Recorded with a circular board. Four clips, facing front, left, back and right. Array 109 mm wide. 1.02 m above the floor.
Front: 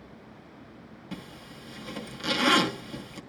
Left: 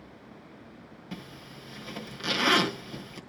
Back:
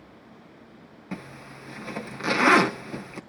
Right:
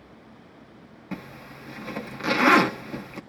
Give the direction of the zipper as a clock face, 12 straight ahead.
5 o'clock.